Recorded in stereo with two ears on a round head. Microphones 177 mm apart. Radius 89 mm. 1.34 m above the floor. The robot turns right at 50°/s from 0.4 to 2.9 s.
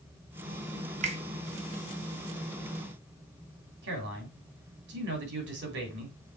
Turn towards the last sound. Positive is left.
turn(degrees=-65)  # may be behind; listen again after turning